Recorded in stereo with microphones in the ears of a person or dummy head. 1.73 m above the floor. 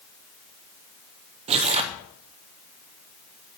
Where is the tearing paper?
30° right (ahead or behind), 0.7 m.